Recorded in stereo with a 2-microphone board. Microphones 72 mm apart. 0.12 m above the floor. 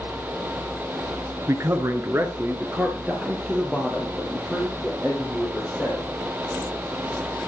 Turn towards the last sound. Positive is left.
turn(degrees=0)  # may be behind; listen again after turning